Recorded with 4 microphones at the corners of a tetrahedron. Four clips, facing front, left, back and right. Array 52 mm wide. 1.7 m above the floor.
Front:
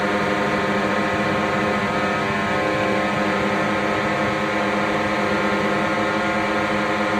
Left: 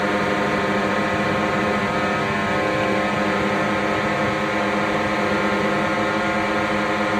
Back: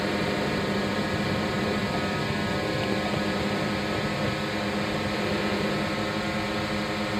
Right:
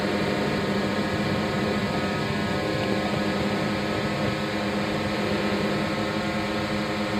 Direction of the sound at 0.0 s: 45° left.